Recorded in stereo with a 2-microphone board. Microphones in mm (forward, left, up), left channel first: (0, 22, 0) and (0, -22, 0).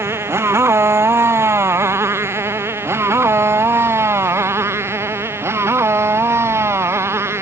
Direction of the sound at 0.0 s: 85° right.